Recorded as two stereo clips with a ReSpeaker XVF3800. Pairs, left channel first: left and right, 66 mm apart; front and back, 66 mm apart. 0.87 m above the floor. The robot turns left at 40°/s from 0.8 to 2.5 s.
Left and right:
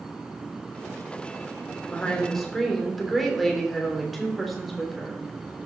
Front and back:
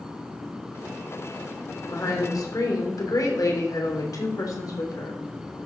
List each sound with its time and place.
1.9 s a woman speaking: 25° left, 3 m; by 5.2 s straight ahead, 3 m